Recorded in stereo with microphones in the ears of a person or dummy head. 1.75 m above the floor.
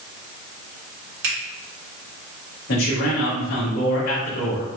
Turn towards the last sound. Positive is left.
turn(degrees=55)  # may be behind; listen again after turning